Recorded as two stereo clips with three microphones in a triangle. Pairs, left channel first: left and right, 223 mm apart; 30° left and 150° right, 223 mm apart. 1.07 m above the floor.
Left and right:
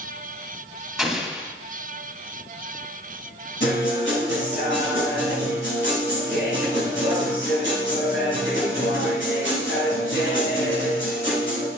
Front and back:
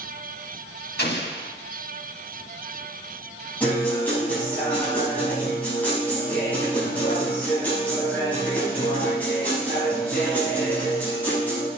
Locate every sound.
1.0 s an explosion: straight ahead, 2 m
3.6 s a guitar: 110° left, 6 m